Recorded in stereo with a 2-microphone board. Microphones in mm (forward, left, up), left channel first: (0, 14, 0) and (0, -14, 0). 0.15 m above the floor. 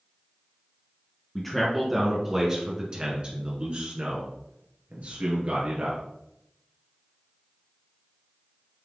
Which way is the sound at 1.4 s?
5° left (ahead or behind).